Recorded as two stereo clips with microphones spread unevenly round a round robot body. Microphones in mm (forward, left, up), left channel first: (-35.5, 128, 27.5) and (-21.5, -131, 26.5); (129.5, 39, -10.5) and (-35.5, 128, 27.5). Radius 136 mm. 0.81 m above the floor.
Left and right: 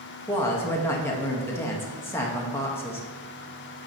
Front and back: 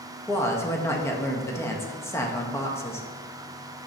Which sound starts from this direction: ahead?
A woman speaking, at 0.3 s.